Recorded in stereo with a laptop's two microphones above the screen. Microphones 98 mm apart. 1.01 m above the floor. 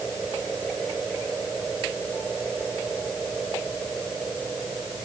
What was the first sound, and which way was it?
Only background noise.